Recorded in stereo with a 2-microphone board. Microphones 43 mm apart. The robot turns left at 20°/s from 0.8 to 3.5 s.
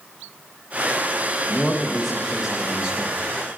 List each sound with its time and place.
1.5 s a man speaking: 10° left, 1.3 m; by 3.2 s 25° right, 1.3 m